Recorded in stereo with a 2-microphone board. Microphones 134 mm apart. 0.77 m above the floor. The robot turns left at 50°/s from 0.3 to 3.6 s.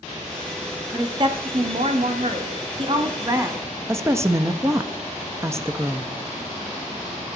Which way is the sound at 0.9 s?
25° right.